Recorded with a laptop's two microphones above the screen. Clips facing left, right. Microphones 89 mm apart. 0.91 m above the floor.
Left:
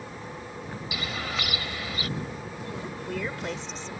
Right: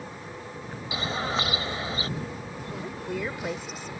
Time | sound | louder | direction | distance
0.9 | a bird | right 5 dB | 30° right (ahead or behind) | ?
2.7 | a woman speaking | right 1 dB | 10° right (ahead or behind) | ?